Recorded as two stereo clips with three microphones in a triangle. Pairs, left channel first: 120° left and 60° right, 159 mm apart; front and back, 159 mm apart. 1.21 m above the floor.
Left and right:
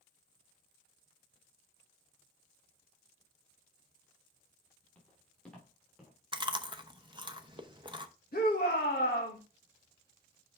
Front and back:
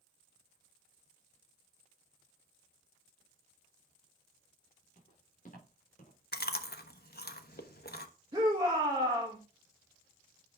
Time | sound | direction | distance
5.0 | footsteps | 40° left | 6.5 m
6.3 | chewing | straight ahead | 0.9 m
8.3 | a shout | 120° left | 1.8 m